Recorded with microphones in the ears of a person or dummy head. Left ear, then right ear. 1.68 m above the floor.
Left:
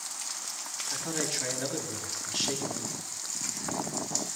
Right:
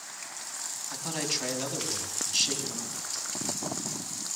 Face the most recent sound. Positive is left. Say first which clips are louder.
# right 1 dB
turn(degrees=-30)  # may be behind; listen again after turning